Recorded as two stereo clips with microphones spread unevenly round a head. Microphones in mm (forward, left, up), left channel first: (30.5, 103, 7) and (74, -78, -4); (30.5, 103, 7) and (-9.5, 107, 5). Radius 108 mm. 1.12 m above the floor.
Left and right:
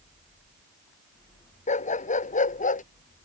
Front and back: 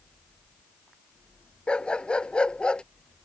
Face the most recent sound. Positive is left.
turn(degrees=60)